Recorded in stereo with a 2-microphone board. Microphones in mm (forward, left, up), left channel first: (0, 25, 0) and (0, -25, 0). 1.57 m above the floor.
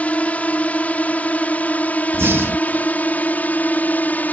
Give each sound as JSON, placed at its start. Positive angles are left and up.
{"t": 0.0, "sound": "a drone", "side_deg": 30}
{"t": 2.1, "sound": "breathing", "side_deg": -55}